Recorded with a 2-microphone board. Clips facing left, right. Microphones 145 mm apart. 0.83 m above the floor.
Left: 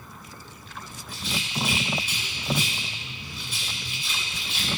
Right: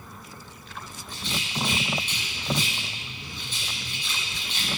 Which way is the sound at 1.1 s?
10° left (ahead or behind).